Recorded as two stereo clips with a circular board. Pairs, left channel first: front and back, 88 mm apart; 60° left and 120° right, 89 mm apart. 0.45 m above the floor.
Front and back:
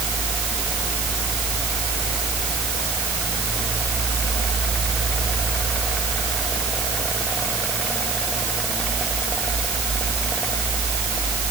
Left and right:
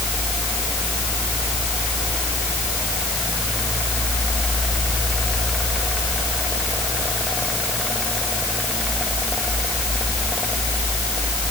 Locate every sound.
Only background noise.